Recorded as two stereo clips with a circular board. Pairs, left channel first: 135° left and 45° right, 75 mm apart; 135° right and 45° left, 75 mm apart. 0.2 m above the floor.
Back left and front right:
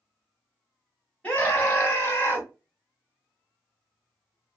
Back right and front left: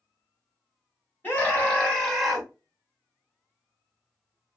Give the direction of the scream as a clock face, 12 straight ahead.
6 o'clock.